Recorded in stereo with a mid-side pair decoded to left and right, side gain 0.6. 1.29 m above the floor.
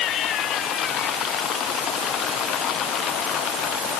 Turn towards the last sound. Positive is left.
No sound to turn to.